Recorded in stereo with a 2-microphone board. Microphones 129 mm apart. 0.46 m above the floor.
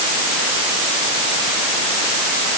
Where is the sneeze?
No sneeze in this recording.